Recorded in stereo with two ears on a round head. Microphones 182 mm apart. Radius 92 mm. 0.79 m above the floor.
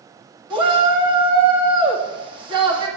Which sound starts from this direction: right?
A shout, at 0.5 s.